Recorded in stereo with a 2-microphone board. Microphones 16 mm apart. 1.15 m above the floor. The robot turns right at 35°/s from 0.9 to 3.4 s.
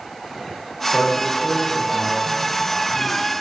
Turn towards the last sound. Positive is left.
turn(degrees=-135)